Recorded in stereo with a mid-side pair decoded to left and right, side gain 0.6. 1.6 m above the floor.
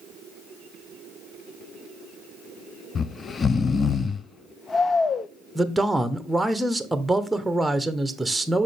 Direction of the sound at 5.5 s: 5° right.